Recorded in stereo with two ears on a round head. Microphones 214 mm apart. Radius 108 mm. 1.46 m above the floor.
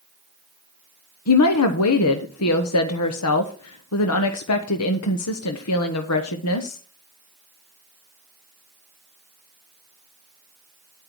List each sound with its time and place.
1.3 s a woman speaking: 75° left (ahead or behind), 1.1 m